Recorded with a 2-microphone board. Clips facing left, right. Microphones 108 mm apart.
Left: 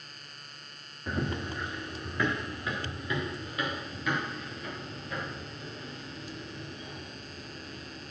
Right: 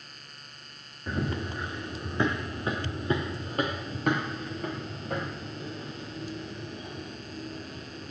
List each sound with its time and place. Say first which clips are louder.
1.1 s running footsteps: right 1 dB; centre (ahead or behind), 1.6 m; by 8.1 s 70° right (ahead or behind), 5.5 m